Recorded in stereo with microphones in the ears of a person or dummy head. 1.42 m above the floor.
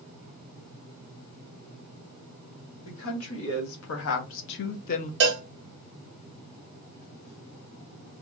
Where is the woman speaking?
85° left, 1.8 m; by 5.1 s 40° left (ahead or behind), 0.6 m.